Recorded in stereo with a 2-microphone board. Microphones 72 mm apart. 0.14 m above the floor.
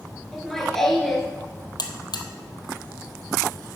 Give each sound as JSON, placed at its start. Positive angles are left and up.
{"t": 0.3, "sound": "laughter", "side_deg": 5, "distance_m": 1.9}
{"t": 1.8, "sound": "a buzzer", "side_deg": 75, "distance_m": 1.1}